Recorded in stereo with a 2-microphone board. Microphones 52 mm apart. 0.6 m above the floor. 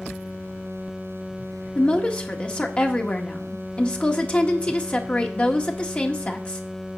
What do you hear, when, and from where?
1.8 s a woman speaking: 25° left (ahead or behind), 1.5 m